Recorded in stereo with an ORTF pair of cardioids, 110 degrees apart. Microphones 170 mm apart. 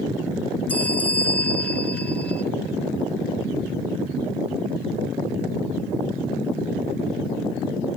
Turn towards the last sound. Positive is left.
turn(degrees=10)